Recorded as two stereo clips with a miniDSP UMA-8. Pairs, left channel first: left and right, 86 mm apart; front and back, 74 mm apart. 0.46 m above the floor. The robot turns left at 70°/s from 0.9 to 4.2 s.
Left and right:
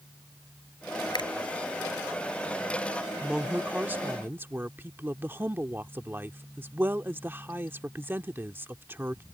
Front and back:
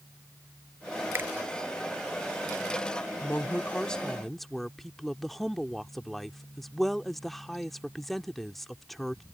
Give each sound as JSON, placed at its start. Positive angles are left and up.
{"t": 1.1, "sound": "a finger snap", "azimuth_deg": 125}
{"t": 3.2, "sound": "a woman speaking", "azimuth_deg": -15}